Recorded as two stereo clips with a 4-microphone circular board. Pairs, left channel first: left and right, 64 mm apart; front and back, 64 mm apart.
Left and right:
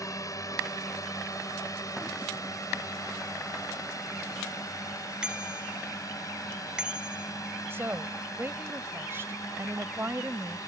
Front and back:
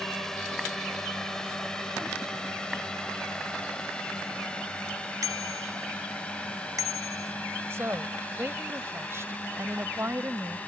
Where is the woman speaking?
140° right.